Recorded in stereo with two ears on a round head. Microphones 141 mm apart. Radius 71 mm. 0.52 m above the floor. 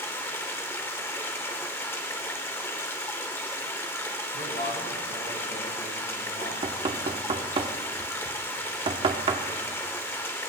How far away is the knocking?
About 0.8 m.